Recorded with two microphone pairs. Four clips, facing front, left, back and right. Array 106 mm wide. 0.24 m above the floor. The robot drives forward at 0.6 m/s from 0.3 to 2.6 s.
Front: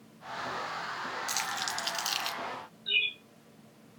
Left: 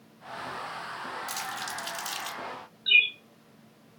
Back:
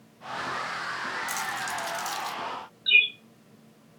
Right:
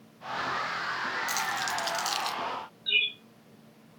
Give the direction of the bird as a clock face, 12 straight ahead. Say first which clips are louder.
Left 8 dB, back 10 dB; 7 o'clock.